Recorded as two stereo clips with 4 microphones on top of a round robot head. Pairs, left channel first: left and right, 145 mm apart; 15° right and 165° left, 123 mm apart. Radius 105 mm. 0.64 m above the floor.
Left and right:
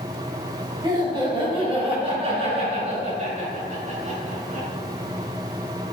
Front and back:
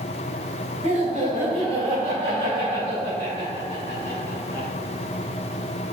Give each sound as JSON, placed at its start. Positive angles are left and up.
{"t": 0.8, "sound": "laughter", "azimuth_deg": -155, "distance_m": 3.0}